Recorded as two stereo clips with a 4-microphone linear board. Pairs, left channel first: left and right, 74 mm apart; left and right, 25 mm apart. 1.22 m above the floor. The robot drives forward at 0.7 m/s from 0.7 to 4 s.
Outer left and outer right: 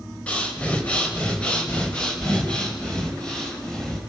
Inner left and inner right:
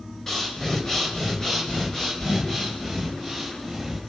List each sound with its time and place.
0.3 s breathing: 15° left (ahead or behind), 3.5 m; by 4.0 s 10° left (ahead or behind), 6 m